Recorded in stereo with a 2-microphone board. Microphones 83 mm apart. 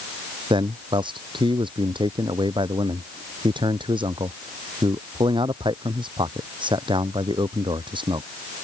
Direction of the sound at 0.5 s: 70° right (ahead or behind).